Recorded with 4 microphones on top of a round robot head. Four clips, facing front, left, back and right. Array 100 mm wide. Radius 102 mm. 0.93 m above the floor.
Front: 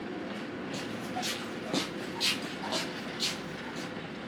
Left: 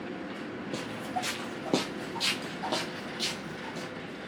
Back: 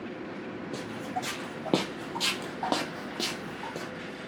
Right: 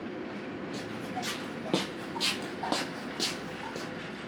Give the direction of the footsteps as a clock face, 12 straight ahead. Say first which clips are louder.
Left 5 dB, back 3 dB; 9 o'clock.